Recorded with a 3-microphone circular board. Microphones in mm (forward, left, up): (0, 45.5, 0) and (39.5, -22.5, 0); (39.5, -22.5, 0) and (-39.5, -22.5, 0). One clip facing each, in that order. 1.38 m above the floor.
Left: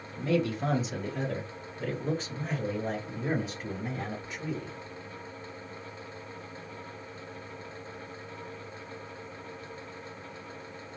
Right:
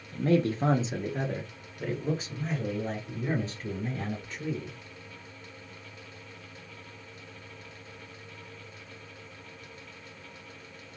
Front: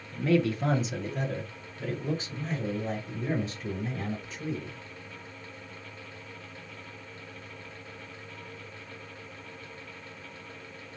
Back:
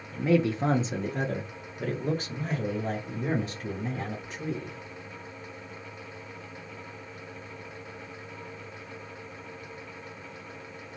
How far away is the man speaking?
About 1.0 m.